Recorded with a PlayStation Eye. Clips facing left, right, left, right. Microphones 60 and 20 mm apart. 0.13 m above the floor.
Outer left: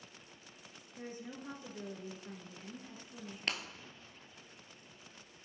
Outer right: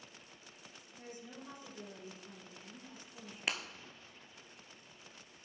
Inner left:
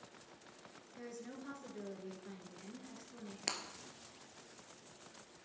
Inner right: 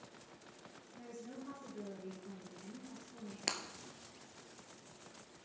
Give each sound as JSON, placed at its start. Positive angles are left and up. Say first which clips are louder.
{"t": 1.0, "sound": "a woman speaking", "louder": "outer left 4 dB, inner left 1 dB", "side_deg": 45, "distance_m": 1.6}
{"t": 3.5, "sound": "breaking glass", "louder": "outer right 1 dB, inner right 2 dB", "side_deg": -10, "distance_m": 0.7}